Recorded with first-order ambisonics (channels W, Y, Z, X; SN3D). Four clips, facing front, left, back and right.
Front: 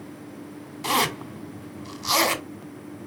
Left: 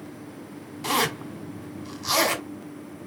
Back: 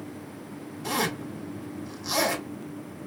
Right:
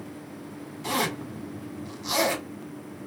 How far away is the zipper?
About 3 m.